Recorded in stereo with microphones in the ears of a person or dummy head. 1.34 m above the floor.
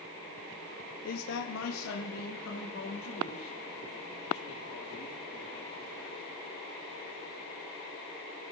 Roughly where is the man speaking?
Left.